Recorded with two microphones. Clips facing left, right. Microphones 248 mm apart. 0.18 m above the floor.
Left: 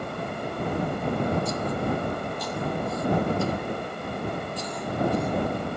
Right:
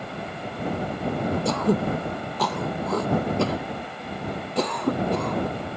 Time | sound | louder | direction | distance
1.4 | throat clearing | right 5 dB | 75° right (ahead or behind) | ?